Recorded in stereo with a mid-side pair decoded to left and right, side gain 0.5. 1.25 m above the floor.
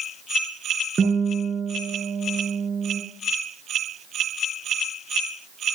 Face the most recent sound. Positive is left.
turn(degrees=-35)